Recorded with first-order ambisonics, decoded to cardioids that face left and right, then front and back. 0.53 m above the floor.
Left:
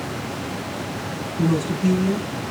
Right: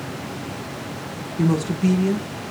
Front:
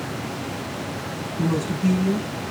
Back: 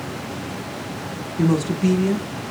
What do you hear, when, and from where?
1.4 s a woman speaking: 155° right, 0.8 m